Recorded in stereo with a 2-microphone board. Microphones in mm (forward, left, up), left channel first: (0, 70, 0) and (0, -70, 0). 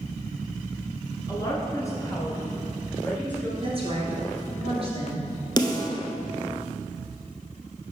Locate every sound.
1.3 s a woman speaking: 25° left (ahead or behind), 1.4 m; by 3.5 s 10° left (ahead or behind), 1.4 m
3.6 s a woman speaking: 45° right (ahead or behind), 1.7 m
5.6 s a snare drum: 30° left (ahead or behind), 0.8 m